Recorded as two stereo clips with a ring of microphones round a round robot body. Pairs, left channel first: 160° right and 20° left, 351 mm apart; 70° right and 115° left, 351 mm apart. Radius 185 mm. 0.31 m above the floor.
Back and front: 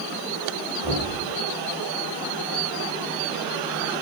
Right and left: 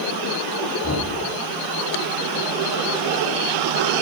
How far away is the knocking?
About 8 m.